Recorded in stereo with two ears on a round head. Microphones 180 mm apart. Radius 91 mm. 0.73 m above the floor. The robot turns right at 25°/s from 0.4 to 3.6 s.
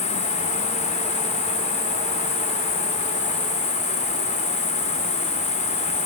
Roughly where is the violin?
No violin in this recording.